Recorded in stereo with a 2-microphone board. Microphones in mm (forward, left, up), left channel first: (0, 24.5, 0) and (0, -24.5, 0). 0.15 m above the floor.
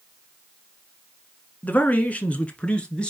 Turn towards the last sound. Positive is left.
turn(degrees=20)  # may be behind; listen again after turning